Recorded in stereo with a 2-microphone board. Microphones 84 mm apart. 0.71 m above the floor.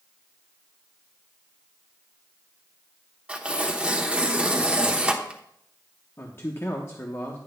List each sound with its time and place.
3.3 s tearing paper: 15° right (ahead or behind), 0.9 m
6.2 s a man speaking: 35° left (ahead or behind), 0.9 m